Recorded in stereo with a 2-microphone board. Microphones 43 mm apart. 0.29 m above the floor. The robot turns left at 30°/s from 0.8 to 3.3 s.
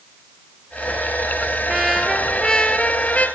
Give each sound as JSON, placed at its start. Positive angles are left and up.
{"t": 1.7, "sound": "a trumpet", "azimuth_deg": -170, "distance_m": 1.6}